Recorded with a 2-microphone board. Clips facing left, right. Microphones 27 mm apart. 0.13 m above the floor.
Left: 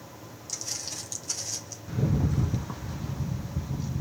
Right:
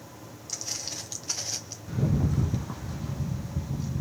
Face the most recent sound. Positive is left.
turn(degrees=5)  # may be behind; listen again after turning